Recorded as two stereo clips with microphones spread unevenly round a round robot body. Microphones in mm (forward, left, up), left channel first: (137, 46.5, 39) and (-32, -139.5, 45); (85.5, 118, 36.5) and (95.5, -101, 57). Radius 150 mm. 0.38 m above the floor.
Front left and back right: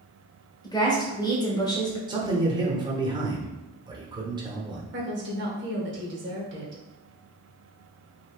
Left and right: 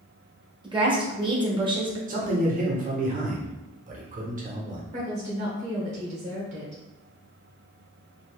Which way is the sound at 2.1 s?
70° right.